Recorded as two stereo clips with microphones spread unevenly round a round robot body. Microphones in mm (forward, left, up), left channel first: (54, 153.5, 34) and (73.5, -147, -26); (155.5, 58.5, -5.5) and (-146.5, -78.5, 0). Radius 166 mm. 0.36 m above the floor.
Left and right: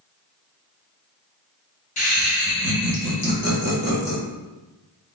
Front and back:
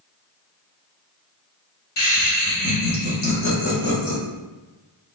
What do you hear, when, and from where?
2.0 s laughter: 25° left, 1.0 m; by 4.2 s 60° left, 1.9 m